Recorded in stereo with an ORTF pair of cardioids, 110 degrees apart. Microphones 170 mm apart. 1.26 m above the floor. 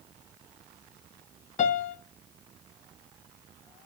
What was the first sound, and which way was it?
A piano, 45° left.